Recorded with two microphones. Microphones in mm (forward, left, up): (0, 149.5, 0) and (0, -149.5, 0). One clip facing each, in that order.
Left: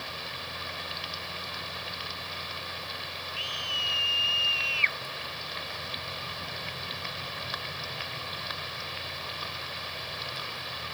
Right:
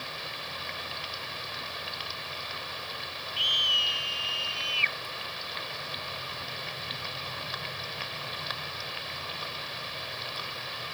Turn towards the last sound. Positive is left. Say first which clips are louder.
# even
turn(degrees=-40)  # may be behind; listen again after turning